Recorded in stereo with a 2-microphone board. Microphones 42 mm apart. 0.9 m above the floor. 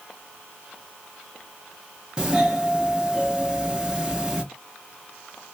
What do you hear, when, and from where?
2.2 s a doorbell: 20° right (ahead or behind), 0.7 m